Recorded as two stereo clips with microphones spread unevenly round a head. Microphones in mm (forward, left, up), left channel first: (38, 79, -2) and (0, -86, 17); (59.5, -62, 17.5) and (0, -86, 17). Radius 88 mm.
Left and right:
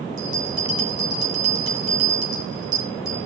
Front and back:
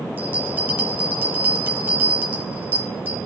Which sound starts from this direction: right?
A bell, at 0.2 s.